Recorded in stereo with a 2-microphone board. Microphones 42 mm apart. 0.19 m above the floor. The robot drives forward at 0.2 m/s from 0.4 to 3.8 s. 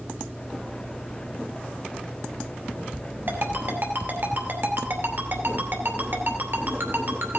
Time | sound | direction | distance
3.3 | a ringtone | 60° right (ahead or behind) | 2.5 m